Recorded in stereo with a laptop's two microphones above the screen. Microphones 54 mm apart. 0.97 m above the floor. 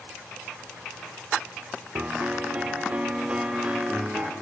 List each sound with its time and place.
1.9 s a piano: 25° right (ahead or behind), 0.9 m